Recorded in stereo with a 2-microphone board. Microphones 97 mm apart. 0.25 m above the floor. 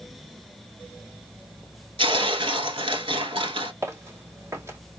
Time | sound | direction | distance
2.0 | tearing paper | 60° right (ahead or behind) | 0.8 m
3.8 | footsteps | 30° right (ahead or behind) | 2.5 m